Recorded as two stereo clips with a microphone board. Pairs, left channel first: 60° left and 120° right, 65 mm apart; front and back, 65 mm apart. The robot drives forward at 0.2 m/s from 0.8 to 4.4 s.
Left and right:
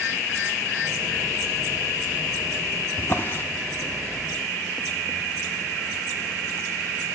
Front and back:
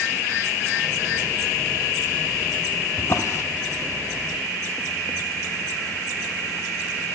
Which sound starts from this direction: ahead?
A drawer, at 3.0 s.